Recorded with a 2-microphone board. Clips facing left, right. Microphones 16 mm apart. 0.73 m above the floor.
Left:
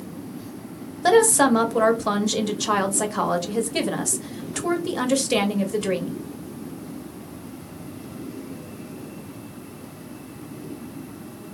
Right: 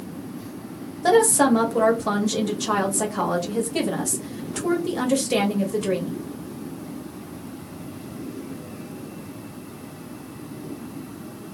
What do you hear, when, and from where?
1.0 s a woman speaking: 15° left (ahead or behind), 0.8 m